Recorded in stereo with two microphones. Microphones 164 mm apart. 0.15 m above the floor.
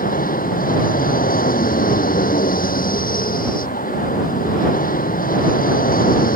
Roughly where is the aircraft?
Left.